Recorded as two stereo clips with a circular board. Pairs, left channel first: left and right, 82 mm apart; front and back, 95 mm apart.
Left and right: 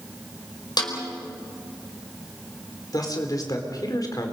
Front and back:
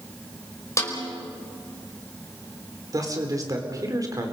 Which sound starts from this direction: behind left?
A man speaking, at 2.9 s.